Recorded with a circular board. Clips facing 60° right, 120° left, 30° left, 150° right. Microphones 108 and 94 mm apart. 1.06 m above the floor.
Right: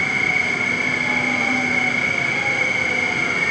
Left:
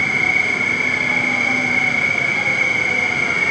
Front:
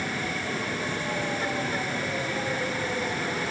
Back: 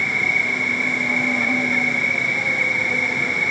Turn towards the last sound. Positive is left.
turn(degrees=-145)